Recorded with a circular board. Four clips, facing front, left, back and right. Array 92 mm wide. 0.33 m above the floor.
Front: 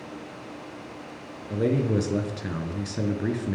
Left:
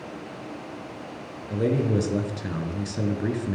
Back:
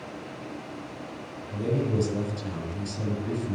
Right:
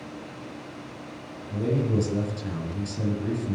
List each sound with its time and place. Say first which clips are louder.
1.5 s a man speaking: left 2 dB, front 4 dB; 35° left, 4 m